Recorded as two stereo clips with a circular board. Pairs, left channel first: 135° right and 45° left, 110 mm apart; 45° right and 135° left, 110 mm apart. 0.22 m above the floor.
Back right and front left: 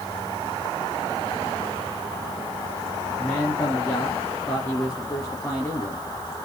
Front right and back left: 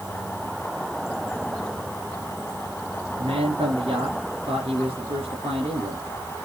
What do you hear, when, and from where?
3.2 s a man speaking: 150° left, 4 m